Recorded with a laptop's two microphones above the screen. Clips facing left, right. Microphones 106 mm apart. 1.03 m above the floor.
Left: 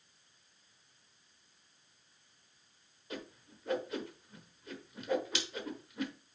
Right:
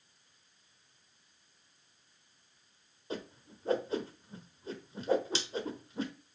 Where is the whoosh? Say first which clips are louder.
Right 4 dB; 30° right (ahead or behind), 1.0 m.